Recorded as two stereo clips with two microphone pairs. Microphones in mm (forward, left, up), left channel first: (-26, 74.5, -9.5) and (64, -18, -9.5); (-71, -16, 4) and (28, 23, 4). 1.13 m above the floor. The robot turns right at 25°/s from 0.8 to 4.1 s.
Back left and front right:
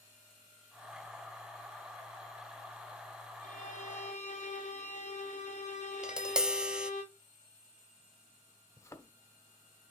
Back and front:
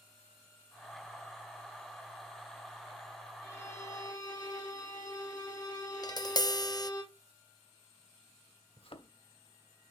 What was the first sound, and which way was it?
A violin, 140° left.